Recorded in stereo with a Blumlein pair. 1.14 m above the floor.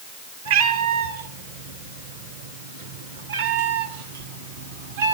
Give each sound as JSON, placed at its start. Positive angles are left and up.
{"t": 0.5, "sound": "a cat meowing", "azimuth_deg": -65, "distance_m": 4.5}